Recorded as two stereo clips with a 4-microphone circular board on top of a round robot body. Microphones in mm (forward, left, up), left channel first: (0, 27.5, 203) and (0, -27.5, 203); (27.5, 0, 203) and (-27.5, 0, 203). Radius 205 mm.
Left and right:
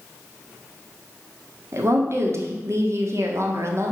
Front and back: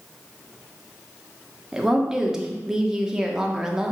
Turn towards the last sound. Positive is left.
turn(degrees=-100)